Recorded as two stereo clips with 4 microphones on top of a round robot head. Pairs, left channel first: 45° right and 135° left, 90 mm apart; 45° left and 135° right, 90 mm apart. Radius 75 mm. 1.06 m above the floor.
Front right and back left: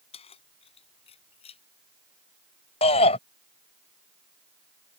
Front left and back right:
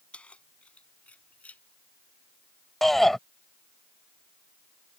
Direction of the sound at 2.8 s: 45° right.